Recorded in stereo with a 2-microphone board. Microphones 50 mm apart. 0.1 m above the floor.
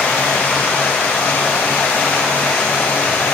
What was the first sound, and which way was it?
Running water, 25° left (ahead or behind).